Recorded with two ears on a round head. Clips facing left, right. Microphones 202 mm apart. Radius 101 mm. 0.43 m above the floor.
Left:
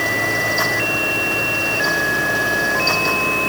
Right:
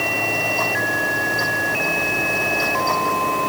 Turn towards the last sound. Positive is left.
No sound to turn to.